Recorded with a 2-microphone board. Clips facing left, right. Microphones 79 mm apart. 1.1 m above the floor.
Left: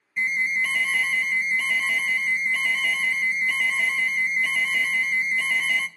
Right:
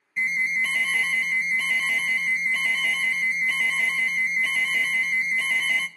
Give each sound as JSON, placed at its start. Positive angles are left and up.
{"t": 0.2, "sound": "an alarm", "side_deg": 0, "distance_m": 0.8}